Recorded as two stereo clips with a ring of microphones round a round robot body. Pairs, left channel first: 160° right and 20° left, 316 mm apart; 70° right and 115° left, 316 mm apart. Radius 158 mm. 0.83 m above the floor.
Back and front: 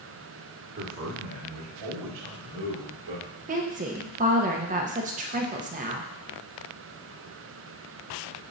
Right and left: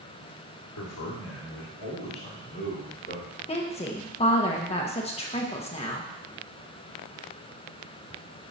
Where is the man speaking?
30° right, 1.8 m; by 3.3 s 5° left, 2.5 m.